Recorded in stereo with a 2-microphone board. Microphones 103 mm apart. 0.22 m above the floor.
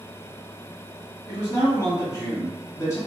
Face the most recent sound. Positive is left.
turn(degrees=30)  # may be behind; listen again after turning